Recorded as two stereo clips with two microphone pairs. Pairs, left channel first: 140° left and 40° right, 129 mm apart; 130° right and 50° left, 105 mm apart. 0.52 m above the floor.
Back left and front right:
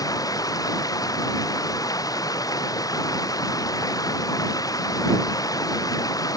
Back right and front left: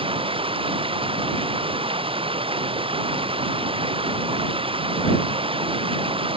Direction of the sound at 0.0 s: 80° left.